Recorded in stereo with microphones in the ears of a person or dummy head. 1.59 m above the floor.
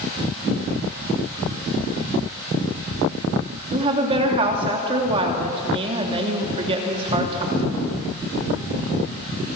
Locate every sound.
3.7 s a woman speaking: 30° right (ahead or behind), 3 m